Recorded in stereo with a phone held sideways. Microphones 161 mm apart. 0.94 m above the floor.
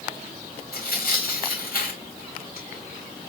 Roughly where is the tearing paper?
Left.